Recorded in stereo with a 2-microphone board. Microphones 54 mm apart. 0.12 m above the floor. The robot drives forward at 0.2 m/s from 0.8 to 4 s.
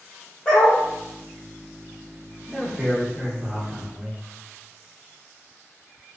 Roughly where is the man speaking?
Centre.